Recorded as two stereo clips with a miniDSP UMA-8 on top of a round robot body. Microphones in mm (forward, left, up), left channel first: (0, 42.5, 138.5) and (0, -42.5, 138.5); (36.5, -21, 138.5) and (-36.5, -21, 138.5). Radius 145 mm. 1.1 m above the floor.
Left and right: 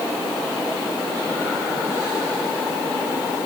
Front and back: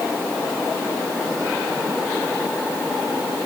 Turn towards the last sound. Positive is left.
No sound to turn to.